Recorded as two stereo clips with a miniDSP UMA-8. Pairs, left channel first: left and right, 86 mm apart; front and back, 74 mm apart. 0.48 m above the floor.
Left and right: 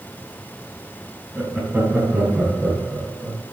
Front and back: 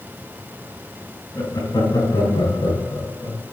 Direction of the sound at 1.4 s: 25° right.